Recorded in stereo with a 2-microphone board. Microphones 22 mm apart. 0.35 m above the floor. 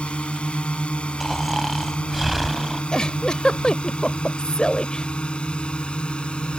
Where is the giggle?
40° left (ahead or behind).